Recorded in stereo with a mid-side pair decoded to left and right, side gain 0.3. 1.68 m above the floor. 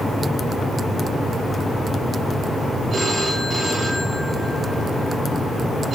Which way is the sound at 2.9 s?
65° right.